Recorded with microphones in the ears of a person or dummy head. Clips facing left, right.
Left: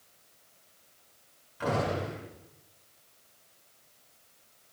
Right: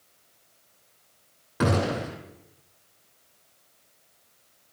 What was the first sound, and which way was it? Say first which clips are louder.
A gunshot: right 5 dB; 80° right.